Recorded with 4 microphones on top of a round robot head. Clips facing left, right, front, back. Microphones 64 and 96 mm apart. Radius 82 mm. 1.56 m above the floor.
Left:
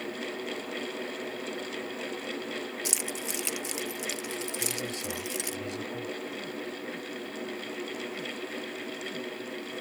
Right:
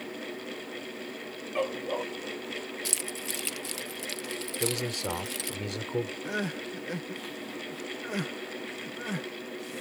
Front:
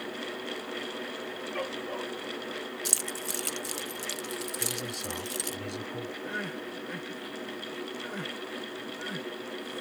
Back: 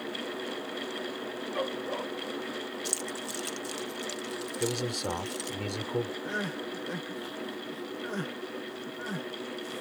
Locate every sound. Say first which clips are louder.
1.6 s a dog barking: right 6 dB, back 2 dB; 100° right
2.9 s keys jangling: left 2 dB, back 1 dB; 25° left
4.6 s a man speaking: right 3 dB, back 5 dB; 135° right
6.2 s crying: right 3 dB, back 2 dB; 115° right